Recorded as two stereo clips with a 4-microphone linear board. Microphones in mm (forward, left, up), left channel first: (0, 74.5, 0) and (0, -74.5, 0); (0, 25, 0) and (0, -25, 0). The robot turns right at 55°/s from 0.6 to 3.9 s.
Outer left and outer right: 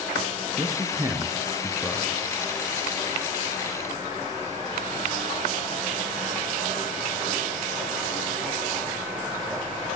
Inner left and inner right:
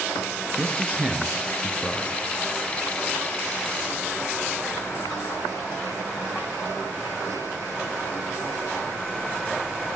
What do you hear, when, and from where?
0.6 s a man speaking: 25° right (ahead or behind), 1.6 m; by 2.1 s 5° left (ahead or behind), 1.6 m